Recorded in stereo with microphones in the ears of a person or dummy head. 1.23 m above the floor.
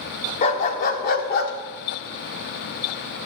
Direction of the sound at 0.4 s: 35° left (ahead or behind).